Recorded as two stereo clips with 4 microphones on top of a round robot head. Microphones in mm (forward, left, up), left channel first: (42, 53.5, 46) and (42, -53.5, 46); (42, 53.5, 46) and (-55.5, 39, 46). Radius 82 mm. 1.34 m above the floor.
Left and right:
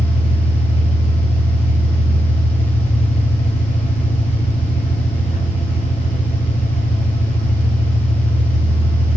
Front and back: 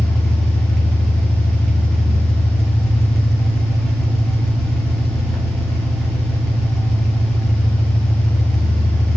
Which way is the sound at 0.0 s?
100° left.